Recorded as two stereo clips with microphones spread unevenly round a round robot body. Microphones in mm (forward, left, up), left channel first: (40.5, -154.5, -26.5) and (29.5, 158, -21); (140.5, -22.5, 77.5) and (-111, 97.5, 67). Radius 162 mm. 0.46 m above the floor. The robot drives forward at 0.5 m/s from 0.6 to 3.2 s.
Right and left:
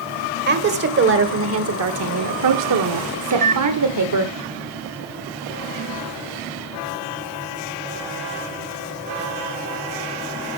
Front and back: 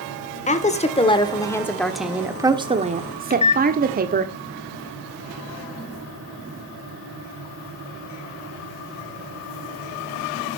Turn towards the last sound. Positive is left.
turn(degrees=35)